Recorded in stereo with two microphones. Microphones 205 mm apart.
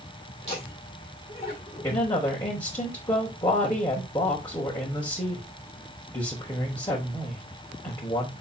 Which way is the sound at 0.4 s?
30° left (ahead or behind).